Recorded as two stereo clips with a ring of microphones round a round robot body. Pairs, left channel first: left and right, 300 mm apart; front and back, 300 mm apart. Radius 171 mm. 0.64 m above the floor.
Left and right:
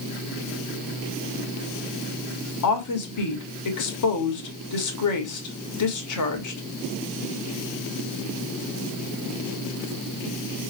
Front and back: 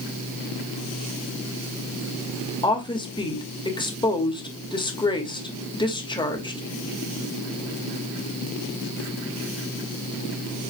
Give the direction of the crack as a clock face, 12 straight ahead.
I don't hear a crack.